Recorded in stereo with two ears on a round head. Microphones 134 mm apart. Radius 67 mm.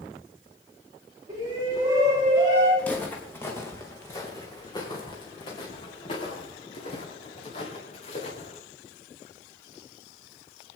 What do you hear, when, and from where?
1.3 s a shout: 30° right (ahead or behind), 4.5 m
2.8 s footsteps: 10° left (ahead or behind), 3 m; by 8.6 s 45° left (ahead or behind), 5 m